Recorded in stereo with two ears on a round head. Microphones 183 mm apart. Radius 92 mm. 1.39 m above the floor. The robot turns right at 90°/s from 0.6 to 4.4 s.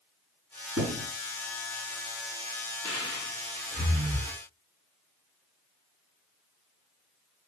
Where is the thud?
80° right, 5 m; by 1.1 s 60° right (ahead or behind), 5 m.